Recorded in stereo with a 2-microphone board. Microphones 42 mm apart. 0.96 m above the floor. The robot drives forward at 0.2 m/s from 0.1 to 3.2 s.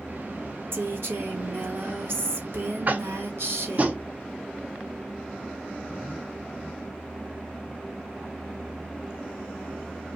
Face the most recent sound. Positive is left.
turn(degrees=-35)  # may be behind; listen again after turning